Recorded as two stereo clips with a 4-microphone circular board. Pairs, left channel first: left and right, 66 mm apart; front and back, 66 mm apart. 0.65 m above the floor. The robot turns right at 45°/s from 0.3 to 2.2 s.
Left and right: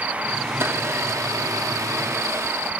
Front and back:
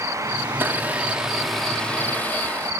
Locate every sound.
0.5 s a blender: 135° right, 0.7 m; by 2.7 s 60° right, 0.7 m